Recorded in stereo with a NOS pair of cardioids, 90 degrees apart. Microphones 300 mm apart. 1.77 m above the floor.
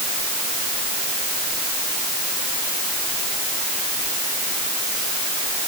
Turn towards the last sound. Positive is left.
No sound to turn to.